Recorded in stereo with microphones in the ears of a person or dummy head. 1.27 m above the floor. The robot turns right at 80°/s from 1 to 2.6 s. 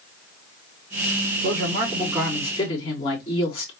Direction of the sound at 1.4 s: 60° right.